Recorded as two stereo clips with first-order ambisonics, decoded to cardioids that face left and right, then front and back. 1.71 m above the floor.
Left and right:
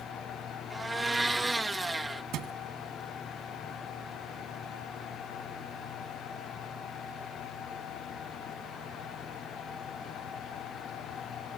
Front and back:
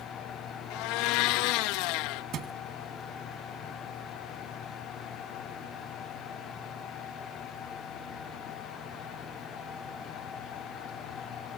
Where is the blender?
10° right.